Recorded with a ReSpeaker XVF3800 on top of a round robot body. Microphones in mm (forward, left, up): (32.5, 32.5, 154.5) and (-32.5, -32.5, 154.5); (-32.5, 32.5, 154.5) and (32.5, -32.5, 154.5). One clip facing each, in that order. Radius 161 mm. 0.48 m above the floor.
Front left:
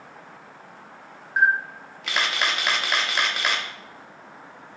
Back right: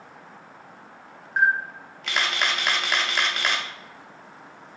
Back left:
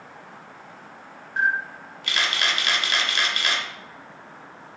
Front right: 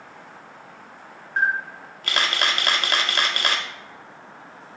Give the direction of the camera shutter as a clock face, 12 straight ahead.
1 o'clock.